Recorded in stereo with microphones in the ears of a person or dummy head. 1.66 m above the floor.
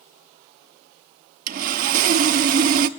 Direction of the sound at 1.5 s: 50° right (ahead or behind).